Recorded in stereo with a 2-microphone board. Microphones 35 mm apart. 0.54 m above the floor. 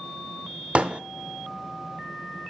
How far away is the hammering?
About 1.1 m.